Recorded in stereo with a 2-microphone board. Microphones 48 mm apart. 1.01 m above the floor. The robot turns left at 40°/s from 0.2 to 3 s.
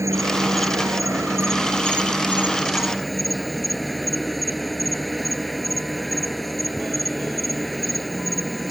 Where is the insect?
70° right; by 8.7 s straight behind.